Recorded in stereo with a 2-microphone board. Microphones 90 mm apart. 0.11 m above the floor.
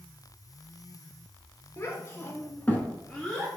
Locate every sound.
1.8 s a child speaking: 30° left (ahead or behind), 1.0 m; by 3.6 s 5° right (ahead or behind), 0.9 m